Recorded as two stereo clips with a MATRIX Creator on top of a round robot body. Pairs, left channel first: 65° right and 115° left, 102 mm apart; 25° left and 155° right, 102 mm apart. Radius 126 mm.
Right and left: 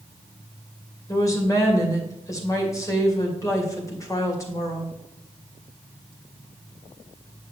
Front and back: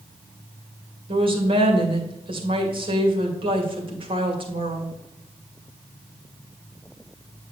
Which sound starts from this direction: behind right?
A woman speaking, at 1.1 s.